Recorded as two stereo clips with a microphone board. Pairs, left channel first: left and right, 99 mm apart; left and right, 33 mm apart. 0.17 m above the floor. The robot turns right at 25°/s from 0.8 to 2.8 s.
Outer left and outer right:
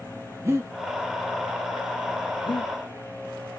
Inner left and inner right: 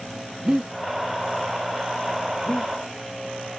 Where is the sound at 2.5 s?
55° left (ahead or behind), 0.9 m; by 2.7 s 60° left (ahead or behind), 0.9 m.